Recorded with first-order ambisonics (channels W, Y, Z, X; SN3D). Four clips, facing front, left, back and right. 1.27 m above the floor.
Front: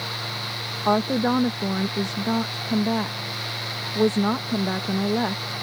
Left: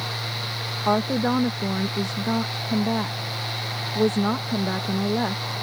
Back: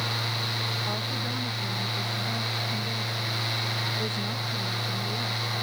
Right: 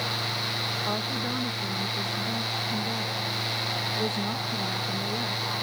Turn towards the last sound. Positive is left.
turn(degrees=35)